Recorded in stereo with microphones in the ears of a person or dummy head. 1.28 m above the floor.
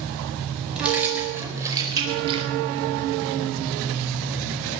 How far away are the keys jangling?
About 5 m.